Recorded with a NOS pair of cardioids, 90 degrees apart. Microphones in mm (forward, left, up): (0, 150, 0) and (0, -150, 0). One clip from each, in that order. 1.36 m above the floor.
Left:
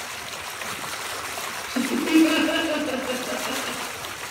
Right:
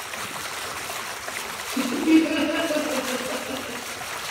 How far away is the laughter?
About 0.9 m.